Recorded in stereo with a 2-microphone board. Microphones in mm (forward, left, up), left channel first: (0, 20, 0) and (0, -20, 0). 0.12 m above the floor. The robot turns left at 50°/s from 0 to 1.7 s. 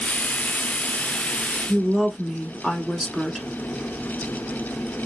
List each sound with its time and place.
1.7 s a woman speaking: centre (ahead or behind), 1.1 m